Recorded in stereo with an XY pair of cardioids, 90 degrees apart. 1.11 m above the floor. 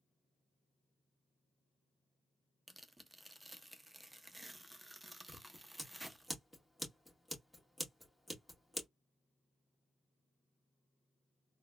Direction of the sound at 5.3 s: Straight ahead.